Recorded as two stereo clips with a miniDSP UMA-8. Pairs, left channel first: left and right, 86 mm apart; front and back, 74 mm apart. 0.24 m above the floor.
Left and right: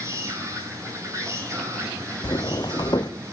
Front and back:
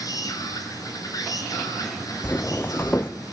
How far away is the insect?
About 8 m.